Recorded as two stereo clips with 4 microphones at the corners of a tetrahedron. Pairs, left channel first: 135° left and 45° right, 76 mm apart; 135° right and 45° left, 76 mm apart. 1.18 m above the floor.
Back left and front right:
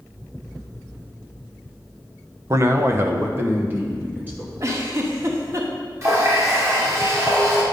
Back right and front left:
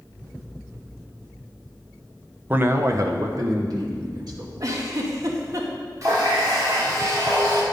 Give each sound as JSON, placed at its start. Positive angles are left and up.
{"t": 2.5, "sound": "a man speaking", "azimuth_deg": -15, "distance_m": 0.5}
{"t": 4.6, "sound": "a giggle", "azimuth_deg": 5, "distance_m": 1.1}
{"t": 6.0, "sound": "a running tap", "azimuth_deg": 0, "distance_m": 2.0}